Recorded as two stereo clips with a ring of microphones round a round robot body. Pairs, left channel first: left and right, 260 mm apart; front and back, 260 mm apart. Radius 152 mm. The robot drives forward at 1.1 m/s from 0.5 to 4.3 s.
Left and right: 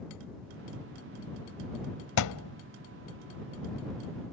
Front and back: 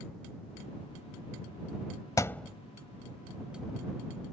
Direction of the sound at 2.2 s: 75° left.